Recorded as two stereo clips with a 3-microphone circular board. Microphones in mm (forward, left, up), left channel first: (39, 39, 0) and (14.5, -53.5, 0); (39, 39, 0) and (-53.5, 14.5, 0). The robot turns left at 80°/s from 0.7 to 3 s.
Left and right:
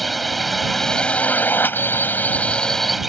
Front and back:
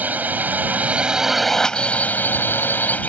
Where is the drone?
165° left; by 3.1 s 20° right.